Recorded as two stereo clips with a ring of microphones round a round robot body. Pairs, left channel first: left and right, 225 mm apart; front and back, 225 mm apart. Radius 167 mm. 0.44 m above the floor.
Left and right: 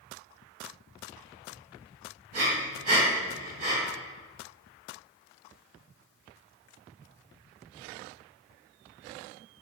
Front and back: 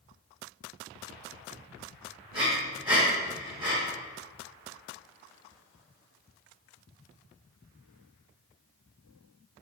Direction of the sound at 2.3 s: 105° right.